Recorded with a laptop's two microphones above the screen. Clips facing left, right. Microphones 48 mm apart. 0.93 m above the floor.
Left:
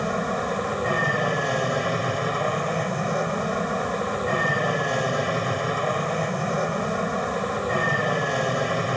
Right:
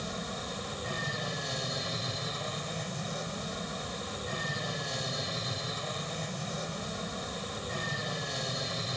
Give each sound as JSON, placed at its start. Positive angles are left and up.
{"t": 0.0, "sound": "an aircraft", "side_deg": 45}